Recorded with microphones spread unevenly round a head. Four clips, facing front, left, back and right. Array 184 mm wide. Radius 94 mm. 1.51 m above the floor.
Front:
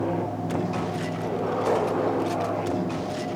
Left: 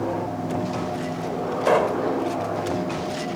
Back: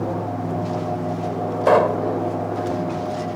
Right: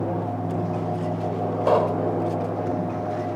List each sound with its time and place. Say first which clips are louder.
1.7 s a pop: left 1 dB, back 9 dB; 175° left